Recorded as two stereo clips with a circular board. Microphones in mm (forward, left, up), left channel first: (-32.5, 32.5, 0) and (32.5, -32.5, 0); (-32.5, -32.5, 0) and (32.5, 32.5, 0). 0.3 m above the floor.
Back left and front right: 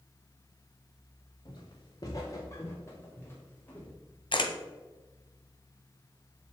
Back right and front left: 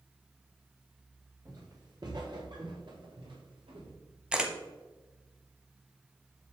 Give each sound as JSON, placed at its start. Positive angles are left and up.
{"t": 1.4, "sound": "footsteps", "azimuth_deg": 95, "distance_m": 3.0}
{"t": 4.3, "sound": "a camera shutter", "azimuth_deg": 125, "distance_m": 1.3}